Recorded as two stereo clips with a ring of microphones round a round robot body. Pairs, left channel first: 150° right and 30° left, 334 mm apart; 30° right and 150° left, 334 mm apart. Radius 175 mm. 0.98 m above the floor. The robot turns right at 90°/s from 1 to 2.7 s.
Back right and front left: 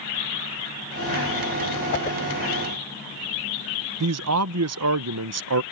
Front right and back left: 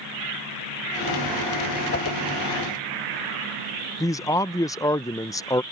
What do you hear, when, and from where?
1.9 s a whoosh: 95° right; by 2.2 s 70° right
4.0 s a man speaking: 45° left